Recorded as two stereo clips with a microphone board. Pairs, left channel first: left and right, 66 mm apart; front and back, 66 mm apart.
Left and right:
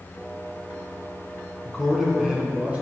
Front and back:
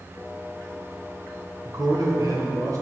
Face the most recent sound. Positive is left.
turn(degrees=-155)